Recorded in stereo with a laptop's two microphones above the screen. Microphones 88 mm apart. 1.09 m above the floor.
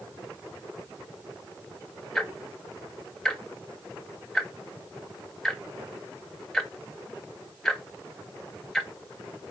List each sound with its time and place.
2.1 s ticking: 5° left (ahead or behind), 0.7 m